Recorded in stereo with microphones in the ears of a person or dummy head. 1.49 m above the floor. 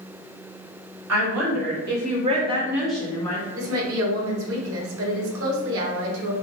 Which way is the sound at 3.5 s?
75° right (ahead or behind).